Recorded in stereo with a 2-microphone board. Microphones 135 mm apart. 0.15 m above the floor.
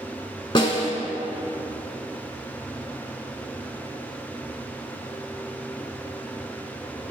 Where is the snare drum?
35° left (ahead or behind), 0.9 m.